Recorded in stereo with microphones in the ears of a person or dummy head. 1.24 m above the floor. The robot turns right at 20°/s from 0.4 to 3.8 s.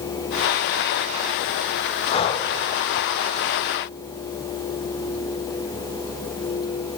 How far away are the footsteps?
I don't hear footsteps.